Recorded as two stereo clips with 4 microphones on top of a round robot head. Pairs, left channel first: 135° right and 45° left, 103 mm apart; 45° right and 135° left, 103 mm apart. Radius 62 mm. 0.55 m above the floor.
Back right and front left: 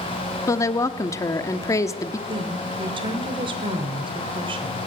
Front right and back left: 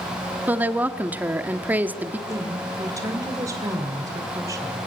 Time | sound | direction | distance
0.5 | a woman speaking | 165° right | 1.3 m
2.3 | a woman speaking | 75° left | 2.5 m